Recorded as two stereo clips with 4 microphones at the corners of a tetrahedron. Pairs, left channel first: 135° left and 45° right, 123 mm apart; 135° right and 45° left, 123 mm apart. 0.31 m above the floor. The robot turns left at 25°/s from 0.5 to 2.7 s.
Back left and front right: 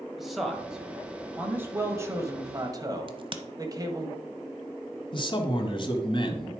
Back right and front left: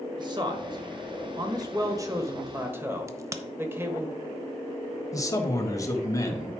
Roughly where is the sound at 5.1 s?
Behind.